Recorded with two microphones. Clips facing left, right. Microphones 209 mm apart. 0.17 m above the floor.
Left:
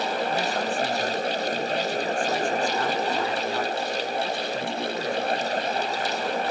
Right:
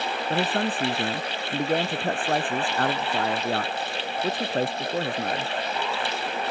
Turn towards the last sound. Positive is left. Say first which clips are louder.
# right 1 dB
turn(degrees=-55)  # may be behind; listen again after turning